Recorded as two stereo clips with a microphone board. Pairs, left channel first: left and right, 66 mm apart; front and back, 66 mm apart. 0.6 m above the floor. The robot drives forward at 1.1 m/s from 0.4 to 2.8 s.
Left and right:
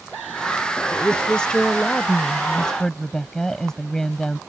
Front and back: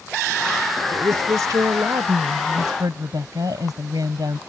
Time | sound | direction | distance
0.9 | a woman speaking | 160° left | ?